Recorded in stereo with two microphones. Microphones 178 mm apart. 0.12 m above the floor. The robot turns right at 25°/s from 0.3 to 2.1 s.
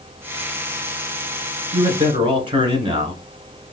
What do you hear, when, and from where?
1.7 s a man speaking: 30° right (ahead or behind), 1.3 m